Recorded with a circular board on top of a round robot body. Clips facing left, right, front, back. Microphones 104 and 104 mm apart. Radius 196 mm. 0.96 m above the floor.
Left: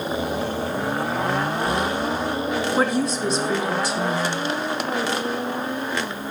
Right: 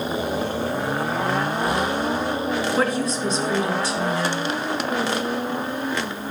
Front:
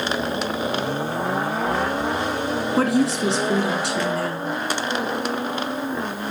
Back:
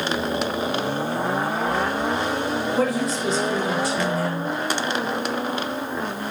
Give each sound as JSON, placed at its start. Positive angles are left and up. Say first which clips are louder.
{"t": 2.8, "sound": "a woman speaking", "louder": "left 1 dB, front 5 dB", "azimuth_deg": 10, "distance_m": 3.5}